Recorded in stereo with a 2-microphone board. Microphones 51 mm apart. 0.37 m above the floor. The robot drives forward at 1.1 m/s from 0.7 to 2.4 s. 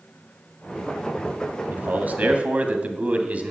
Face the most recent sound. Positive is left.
turn(degrees=-30)  # may be behind; listen again after turning